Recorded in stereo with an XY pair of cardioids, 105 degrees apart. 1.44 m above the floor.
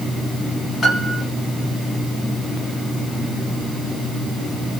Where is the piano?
35° left, 1.0 m.